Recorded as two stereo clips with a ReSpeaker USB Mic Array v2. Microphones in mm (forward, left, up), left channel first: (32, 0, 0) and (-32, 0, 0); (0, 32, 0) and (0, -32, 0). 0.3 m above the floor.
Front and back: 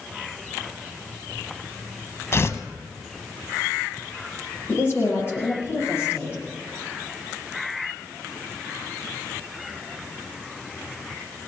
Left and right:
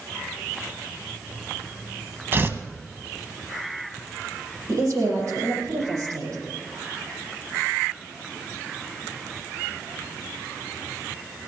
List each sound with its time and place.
2.3 s tearing paper: 40° right, 0.8 m
4.7 s a woman speaking: 50° right, 9 m